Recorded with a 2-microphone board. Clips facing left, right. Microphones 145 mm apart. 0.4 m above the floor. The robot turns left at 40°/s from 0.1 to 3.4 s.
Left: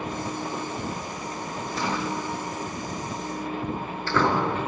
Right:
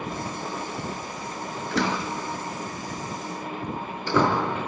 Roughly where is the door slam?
Right.